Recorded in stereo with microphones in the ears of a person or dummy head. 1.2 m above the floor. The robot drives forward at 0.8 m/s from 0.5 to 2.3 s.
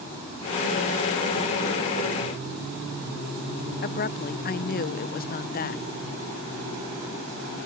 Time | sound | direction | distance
3.8 | a woman speaking | 40° left (ahead or behind) | ?